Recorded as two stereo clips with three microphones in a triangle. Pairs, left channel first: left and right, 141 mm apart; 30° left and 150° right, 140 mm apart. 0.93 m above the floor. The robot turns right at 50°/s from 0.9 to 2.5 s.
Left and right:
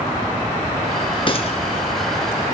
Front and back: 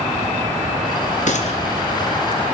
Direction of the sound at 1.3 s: 45° left.